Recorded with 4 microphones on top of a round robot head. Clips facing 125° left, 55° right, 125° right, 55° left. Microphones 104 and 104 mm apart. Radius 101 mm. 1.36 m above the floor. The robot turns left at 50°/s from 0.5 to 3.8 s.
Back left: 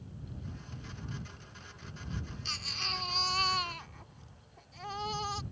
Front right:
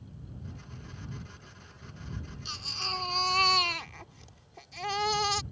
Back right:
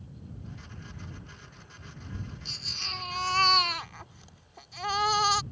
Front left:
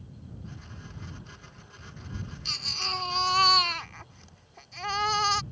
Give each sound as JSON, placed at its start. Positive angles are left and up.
{"t": 2.5, "sound": "a baby crying", "azimuth_deg": 20}